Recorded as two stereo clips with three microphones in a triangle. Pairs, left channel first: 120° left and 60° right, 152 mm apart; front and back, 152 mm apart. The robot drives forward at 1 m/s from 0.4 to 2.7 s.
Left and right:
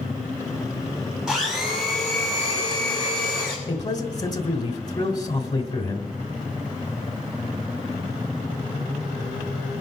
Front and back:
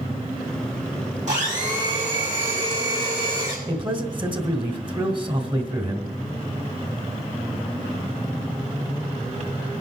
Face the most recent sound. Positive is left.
turn(degrees=160)